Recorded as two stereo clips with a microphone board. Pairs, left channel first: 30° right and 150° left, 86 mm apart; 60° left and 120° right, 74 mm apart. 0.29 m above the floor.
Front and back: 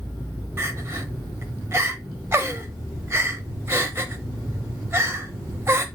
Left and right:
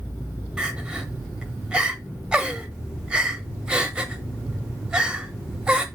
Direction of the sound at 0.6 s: 175° left.